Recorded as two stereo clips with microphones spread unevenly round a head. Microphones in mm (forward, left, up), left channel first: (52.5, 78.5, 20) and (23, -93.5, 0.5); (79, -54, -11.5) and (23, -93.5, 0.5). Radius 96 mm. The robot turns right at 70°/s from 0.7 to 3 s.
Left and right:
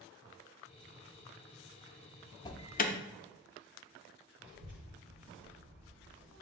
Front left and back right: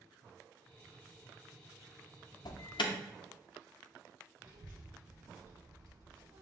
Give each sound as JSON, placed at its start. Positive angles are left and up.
{"t": 2.5, "sound": "an alarm", "azimuth_deg": 10, "distance_m": 0.5}
{"t": 4.4, "sound": "a child speaking", "azimuth_deg": -125, "distance_m": 1.9}